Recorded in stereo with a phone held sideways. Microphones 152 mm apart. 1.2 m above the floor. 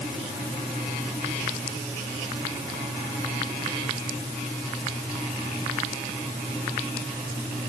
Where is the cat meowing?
I don't hear a cat meowing.